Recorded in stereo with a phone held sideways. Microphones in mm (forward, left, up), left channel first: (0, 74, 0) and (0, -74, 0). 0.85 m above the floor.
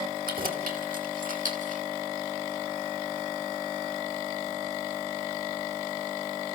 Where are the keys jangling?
75° right (ahead or behind), 3 m; by 1.8 s 60° right (ahead or behind), 2 m.